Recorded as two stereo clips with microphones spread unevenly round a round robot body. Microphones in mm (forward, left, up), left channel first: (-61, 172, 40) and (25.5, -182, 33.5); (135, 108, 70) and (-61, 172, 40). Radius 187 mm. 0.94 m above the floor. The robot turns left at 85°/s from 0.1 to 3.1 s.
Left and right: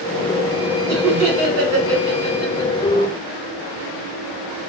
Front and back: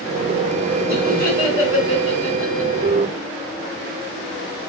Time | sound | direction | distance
0.9 | laughter | 60° right | 1.2 m